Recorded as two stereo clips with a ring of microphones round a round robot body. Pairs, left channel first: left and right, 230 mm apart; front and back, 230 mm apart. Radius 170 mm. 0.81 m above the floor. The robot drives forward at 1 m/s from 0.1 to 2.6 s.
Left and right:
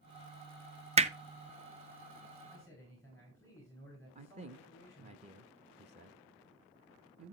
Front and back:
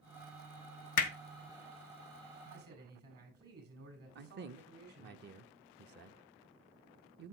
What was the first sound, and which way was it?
Hammering, 25° right.